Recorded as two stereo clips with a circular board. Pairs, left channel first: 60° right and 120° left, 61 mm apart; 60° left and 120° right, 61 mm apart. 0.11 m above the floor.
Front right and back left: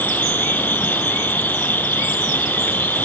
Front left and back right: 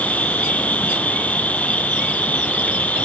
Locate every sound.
0.0 s an insect: 5° right, 1.1 m